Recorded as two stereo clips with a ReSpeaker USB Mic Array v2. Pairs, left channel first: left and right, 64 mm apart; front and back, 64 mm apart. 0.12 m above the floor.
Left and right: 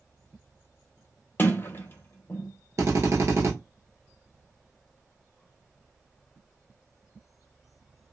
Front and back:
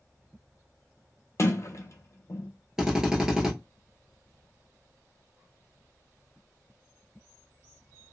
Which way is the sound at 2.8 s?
100° right.